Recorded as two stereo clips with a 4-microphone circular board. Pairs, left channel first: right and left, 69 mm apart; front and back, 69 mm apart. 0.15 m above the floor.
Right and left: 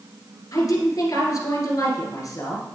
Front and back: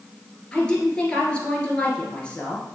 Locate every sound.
0.5 s a woman speaking: 70° right, 2 m